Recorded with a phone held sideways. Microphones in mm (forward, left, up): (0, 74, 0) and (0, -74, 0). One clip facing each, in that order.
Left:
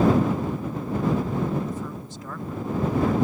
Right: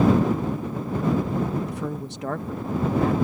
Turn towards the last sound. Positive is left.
turn(degrees=-85)